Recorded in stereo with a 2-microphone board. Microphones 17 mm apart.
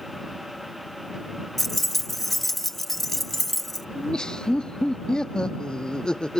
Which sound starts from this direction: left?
Laughter, at 4.0 s.